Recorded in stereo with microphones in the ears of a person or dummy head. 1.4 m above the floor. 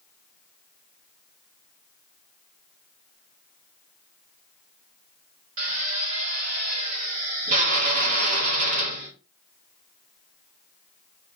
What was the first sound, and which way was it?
A drill, 35° right (ahead or behind).